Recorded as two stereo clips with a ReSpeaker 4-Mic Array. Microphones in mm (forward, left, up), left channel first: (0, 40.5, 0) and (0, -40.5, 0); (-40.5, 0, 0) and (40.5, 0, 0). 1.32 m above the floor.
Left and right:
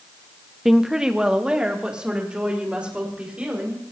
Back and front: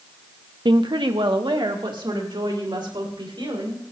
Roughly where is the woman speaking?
Ahead.